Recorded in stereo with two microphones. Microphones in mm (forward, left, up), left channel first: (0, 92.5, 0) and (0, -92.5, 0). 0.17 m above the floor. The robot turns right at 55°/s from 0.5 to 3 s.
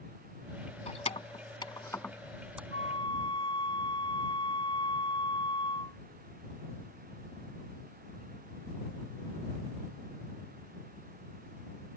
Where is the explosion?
I don't hear an explosion.